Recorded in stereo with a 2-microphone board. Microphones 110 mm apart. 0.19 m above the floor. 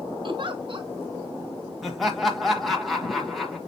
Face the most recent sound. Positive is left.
turn(degrees=0)  # may be behind; listen again after turning